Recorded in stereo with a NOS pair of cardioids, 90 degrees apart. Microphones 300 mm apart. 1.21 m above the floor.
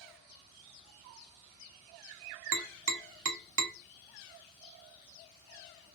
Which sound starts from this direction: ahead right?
Tapping, at 2.5 s.